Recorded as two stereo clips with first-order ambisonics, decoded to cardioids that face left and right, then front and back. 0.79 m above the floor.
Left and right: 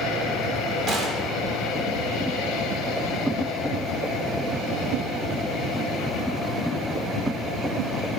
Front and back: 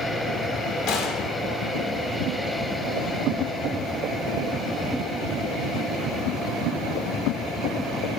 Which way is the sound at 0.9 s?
45° right.